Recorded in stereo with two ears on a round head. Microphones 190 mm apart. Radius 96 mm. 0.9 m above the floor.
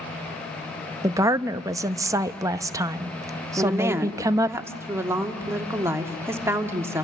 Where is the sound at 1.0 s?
15° right (ahead or behind), 0.7 m.